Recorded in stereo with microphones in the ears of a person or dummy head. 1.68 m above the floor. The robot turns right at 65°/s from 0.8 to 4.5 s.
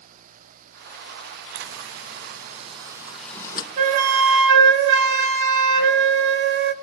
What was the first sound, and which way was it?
A zipper, 110° right.